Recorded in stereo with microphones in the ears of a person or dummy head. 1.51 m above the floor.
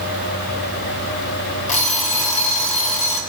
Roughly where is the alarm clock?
Left.